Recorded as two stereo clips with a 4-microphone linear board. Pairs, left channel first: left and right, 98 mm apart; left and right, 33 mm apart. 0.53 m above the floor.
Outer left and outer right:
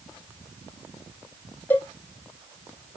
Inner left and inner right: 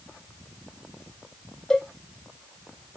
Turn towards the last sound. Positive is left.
turn(degrees=20)  # may be behind; listen again after turning